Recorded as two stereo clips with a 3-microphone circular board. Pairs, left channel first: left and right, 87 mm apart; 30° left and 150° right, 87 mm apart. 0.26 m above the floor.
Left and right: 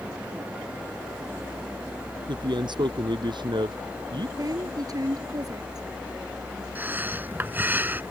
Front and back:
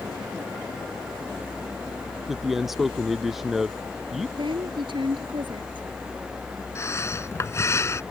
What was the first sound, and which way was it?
A man speaking, 65° right.